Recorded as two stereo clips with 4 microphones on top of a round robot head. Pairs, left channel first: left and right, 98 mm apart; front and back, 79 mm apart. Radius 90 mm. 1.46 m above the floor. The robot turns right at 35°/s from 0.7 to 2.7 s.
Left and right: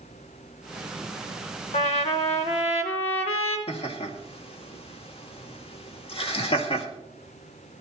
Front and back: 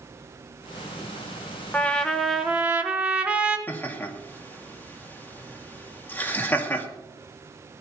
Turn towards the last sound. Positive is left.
turn(degrees=65)